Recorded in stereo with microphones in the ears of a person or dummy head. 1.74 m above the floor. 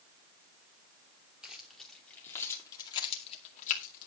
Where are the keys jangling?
Centre (ahead or behind), 3 m; by 4.1 s 55° left (ahead or behind), 2.5 m.